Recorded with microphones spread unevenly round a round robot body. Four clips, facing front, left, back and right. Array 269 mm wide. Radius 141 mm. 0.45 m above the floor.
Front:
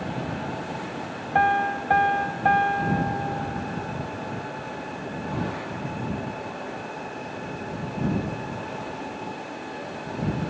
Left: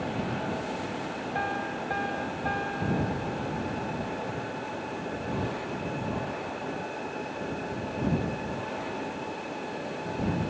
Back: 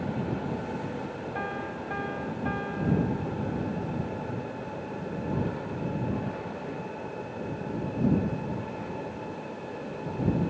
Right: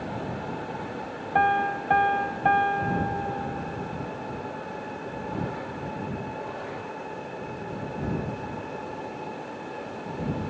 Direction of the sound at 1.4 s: 35° right.